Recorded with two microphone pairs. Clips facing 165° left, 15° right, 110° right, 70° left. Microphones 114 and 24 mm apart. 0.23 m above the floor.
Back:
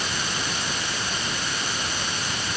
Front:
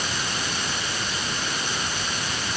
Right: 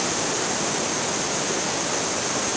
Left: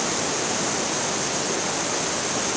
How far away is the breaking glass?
I don't hear breaking glass.